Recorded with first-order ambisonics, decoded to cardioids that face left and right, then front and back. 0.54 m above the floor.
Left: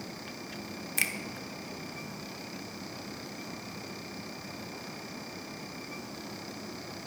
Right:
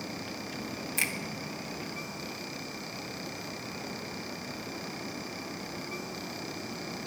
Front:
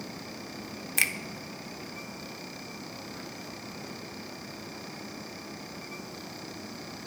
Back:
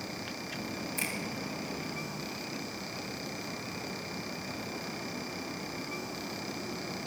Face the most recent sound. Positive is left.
turn(degrees=10)